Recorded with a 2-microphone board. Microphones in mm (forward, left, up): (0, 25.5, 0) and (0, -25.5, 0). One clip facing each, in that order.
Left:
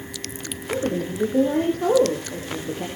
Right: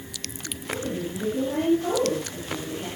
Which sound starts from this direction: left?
A woman speaking, at 0.7 s.